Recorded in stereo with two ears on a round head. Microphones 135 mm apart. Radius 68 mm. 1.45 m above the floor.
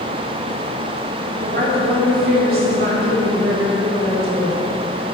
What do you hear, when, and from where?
1.4 s a woman speaking: 70° right (ahead or behind), 2.5 m